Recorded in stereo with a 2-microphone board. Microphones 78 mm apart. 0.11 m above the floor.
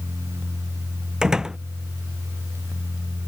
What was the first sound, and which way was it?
A door slam, 10° right (ahead or behind).